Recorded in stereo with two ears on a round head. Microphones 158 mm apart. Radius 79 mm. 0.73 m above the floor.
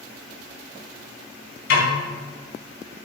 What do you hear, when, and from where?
1.7 s a snare drum: 60° left (ahead or behind), 4.5 m